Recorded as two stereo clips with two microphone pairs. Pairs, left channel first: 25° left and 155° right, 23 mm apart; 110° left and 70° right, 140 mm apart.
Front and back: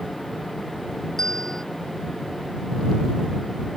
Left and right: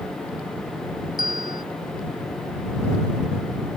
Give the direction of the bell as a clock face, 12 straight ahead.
9 o'clock.